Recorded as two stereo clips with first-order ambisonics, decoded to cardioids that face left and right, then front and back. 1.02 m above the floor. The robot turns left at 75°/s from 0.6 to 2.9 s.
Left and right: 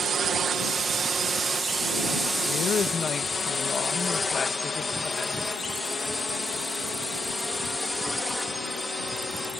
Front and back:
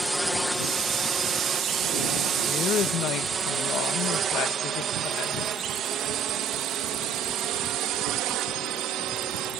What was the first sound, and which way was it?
A drone, 105° right.